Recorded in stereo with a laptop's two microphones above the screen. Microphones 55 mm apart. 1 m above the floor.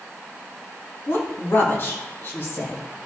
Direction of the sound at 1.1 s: 45° left (ahead or behind).